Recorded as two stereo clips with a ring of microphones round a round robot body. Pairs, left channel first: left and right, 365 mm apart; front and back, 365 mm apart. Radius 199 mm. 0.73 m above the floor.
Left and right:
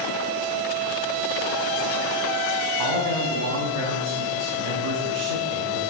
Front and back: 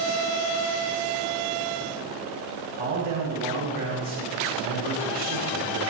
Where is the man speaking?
110° right, 5.5 m.